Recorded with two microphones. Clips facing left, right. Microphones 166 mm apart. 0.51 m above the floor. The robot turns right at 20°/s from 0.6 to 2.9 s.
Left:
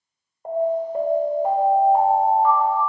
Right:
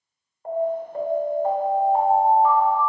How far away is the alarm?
About 1.1 m.